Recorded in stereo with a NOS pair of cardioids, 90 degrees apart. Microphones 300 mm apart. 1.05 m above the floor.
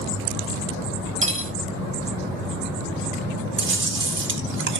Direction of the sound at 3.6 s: 40° right.